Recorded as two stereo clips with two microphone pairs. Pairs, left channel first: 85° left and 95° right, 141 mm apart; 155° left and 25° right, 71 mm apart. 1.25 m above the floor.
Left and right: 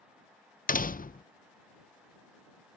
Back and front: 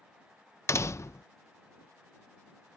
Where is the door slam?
100° left.